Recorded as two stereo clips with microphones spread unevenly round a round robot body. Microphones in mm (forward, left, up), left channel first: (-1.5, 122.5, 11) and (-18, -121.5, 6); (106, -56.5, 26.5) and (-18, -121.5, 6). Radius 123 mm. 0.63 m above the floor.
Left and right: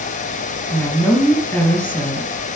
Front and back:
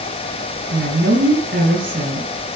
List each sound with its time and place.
0.7 s a woman speaking: 170° left, 5 m